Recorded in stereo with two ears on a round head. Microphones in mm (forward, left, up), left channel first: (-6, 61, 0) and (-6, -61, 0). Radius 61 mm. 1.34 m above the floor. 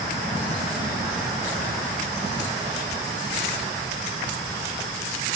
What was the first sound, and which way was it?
Only background noise.